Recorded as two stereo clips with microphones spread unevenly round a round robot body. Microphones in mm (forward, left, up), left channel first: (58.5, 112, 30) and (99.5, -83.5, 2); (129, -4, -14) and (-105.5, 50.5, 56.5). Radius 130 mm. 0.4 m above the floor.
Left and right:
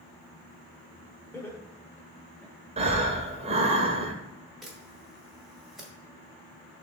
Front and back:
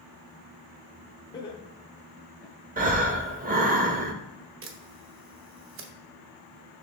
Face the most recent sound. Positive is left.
turn(degrees=-160)